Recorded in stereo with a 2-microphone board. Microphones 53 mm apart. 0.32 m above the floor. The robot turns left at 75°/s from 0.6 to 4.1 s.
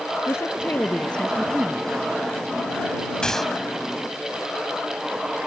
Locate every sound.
0.3 s a woman speaking: 60° left; by 2.0 s 45° right
3.2 s a gunshot: 15° left (ahead or behind); by 3.6 s 5° right (ahead or behind)